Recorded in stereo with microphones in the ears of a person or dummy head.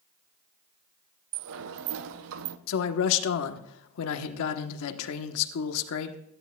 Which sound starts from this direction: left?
A man speaking, at 2.7 s.